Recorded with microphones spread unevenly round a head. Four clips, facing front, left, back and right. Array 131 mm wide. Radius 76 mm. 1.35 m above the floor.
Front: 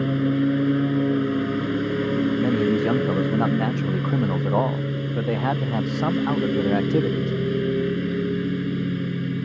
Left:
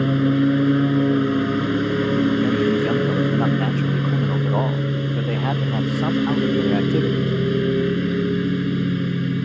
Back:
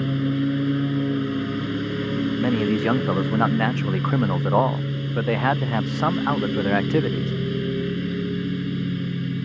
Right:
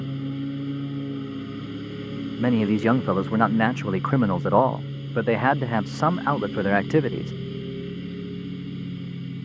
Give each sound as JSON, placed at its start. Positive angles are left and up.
{"t": 0.0, "sound": "a lawn mower", "azimuth_deg": 50}
{"t": 2.4, "sound": "a man speaking", "azimuth_deg": -150}